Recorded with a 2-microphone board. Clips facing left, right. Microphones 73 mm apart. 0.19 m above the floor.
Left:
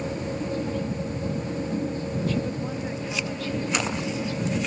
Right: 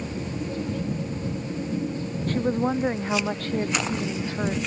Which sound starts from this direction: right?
A woman speaking, at 2.3 s.